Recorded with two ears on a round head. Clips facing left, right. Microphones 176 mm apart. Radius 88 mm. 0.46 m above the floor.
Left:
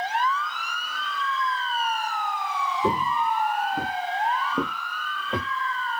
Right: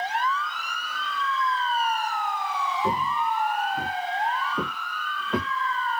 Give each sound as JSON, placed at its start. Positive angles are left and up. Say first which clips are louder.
{"t": 2.8, "sound": "footsteps", "louder": "left 3 dB", "side_deg": 35, "distance_m": 0.6}